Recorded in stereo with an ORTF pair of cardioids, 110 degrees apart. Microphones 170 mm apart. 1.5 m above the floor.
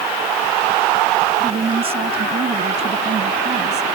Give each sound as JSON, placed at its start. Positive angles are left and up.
{"t": 1.4, "sound": "a woman speaking", "azimuth_deg": -35}